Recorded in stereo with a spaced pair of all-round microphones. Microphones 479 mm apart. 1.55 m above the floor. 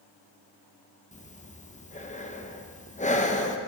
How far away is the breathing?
About 0.7 m.